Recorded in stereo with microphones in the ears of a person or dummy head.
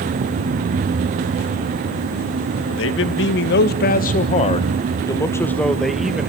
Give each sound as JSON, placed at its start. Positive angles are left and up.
{"t": 2.7, "sound": "a man speaking", "side_deg": 70, "distance_m": 1.7}